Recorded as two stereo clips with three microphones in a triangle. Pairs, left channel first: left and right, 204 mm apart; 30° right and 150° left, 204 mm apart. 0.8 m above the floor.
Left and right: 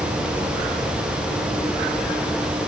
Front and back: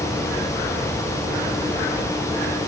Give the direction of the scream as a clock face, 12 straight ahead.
I don't hear a scream.